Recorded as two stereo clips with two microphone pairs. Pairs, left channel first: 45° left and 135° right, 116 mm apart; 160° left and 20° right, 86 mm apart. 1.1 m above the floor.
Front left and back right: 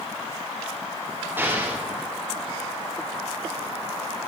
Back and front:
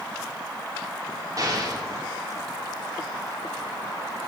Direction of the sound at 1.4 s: 65° right.